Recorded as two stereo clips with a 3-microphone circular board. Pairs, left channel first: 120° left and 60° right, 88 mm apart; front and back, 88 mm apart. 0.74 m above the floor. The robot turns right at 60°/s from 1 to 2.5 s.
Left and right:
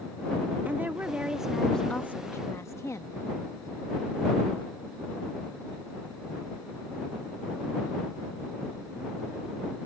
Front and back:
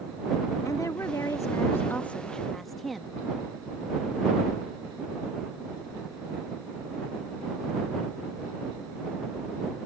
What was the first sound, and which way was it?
A woman speaking, 5° right.